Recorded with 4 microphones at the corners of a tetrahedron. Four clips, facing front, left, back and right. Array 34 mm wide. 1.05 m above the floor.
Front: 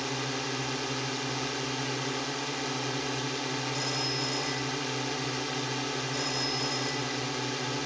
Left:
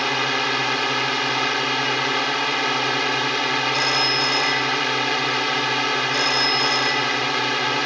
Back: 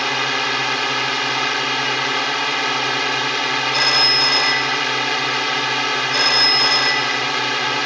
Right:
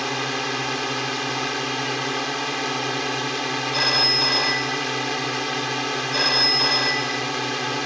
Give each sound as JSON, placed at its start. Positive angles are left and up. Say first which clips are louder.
{"t": 0.0, "sound": "a drone", "louder": "left 4 dB, back 13 dB", "azimuth_deg": 155}
{"t": 3.7, "sound": "a phone ringing", "louder": "right 4 dB, back 19 dB", "azimuth_deg": -165}